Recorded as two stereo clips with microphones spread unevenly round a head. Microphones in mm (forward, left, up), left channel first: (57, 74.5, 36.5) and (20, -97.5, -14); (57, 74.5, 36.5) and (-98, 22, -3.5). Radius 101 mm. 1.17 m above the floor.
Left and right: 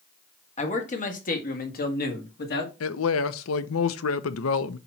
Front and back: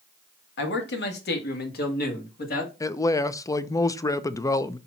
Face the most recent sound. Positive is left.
turn(degrees=90)